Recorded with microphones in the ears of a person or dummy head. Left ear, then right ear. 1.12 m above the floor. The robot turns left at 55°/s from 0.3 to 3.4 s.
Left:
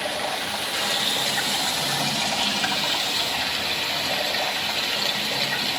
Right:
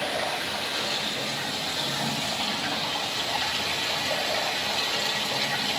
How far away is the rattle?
I don't hear a rattle.